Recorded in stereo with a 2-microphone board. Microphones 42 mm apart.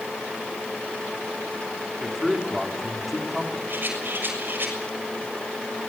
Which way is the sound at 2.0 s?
Centre (ahead or behind).